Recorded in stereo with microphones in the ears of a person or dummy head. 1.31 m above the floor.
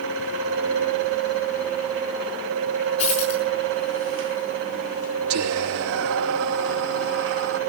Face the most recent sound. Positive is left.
turn(degrees=-75)  # may be behind; listen again after turning